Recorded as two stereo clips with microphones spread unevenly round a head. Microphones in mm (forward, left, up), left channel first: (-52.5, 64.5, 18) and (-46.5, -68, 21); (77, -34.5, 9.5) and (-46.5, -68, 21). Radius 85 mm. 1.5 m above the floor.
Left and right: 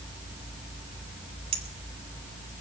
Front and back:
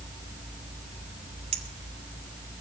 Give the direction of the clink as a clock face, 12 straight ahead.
4 o'clock.